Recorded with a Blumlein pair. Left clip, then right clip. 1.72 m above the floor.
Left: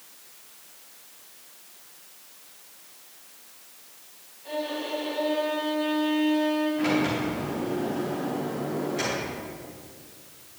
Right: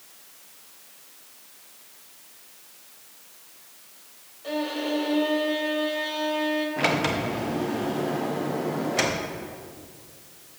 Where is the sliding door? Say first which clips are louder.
Right 2 dB; 60° right, 1.6 m.